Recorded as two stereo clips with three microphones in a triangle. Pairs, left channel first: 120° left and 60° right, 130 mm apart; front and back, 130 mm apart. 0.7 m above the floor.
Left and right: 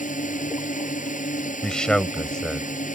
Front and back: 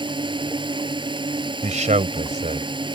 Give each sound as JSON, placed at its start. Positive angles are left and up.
{"t": 0.0, "sound": "a drone", "azimuth_deg": 130}
{"t": 1.6, "sound": "a man speaking", "azimuth_deg": -155}